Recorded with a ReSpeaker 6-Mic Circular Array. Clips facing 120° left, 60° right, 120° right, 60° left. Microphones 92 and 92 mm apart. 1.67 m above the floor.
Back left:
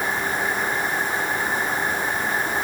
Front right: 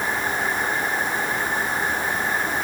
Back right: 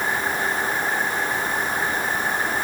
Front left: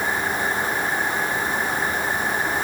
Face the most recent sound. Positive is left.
No sound to turn to.